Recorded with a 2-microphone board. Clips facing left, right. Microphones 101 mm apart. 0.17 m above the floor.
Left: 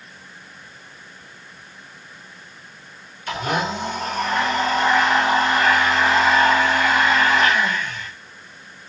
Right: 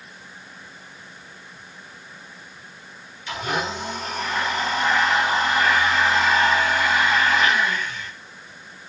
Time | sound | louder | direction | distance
3.3 | a blender | left 3 dB | 55° left (ahead or behind) | 9 m